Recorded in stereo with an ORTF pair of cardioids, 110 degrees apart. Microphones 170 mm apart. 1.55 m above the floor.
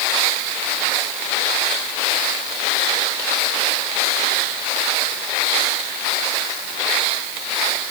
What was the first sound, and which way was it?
Only background noise.